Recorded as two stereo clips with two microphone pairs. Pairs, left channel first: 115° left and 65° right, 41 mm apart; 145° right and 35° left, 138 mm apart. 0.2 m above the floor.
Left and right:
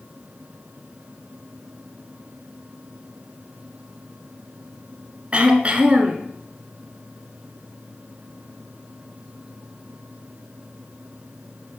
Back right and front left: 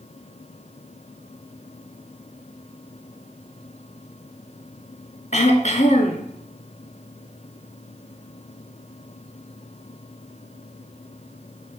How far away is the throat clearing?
About 0.7 m.